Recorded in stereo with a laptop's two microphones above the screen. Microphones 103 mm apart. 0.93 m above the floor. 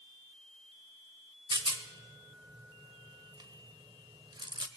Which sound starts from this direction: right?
A rattle, at 1.5 s.